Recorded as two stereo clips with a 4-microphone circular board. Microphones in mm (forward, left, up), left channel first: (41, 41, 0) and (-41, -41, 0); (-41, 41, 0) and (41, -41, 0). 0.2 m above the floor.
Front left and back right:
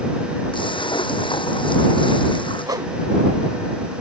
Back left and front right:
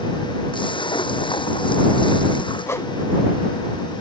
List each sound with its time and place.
0.5 s a splash: 90° left
2.7 s a whoosh: 170° right